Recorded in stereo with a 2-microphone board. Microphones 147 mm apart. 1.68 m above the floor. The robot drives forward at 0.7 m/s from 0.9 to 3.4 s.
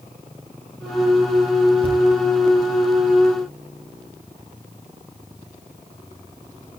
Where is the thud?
40° left (ahead or behind), 9 m; by 2.0 s 35° left (ahead or behind), 9 m.